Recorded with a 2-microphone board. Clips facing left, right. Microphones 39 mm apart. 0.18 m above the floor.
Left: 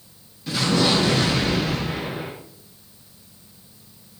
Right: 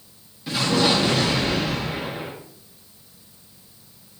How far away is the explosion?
About 8.5 m.